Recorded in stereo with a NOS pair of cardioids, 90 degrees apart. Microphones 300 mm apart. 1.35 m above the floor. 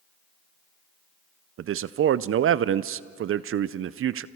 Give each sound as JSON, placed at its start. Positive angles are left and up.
{"t": 1.6, "sound": "a man speaking", "azimuth_deg": -45, "distance_m": 0.5}